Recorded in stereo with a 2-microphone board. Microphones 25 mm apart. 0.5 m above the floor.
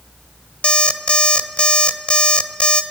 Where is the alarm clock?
55° left (ahead or behind), 1.4 m.